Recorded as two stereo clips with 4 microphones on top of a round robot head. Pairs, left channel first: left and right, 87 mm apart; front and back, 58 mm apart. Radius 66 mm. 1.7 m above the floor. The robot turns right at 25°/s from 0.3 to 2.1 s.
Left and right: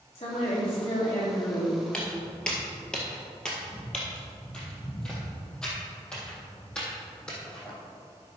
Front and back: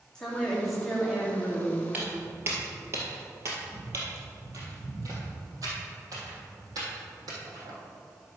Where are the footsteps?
160° left, 1.8 m; by 7.7 s 170° left, 4 m.